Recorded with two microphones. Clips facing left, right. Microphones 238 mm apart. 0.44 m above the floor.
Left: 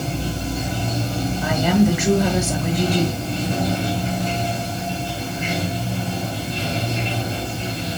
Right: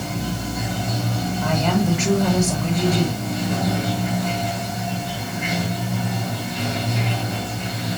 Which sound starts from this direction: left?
Running water, at 0.0 s.